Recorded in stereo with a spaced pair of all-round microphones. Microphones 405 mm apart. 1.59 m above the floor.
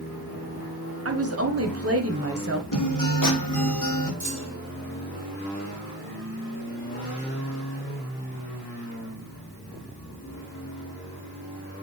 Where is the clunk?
40° right (ahead or behind), 2.5 m.